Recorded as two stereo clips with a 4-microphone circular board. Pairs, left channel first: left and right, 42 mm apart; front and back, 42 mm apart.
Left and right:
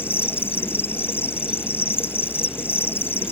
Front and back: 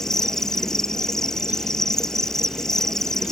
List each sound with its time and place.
0.0 s an insect: 75° left